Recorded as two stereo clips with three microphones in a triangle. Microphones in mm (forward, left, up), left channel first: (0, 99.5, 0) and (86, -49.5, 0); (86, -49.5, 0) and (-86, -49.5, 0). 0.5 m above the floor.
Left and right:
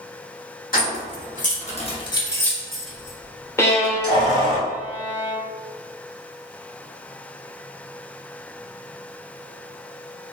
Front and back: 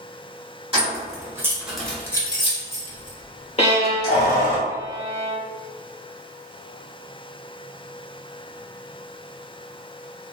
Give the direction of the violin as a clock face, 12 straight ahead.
10 o'clock.